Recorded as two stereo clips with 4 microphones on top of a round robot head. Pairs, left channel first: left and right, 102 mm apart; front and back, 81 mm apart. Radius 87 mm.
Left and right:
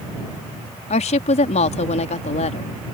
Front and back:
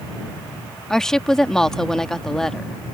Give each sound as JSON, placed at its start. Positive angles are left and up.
{"t": 0.9, "sound": "a woman speaking", "azimuth_deg": 85}